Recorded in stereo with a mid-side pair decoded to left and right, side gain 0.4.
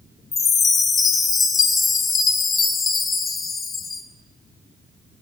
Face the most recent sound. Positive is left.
turn(degrees=50)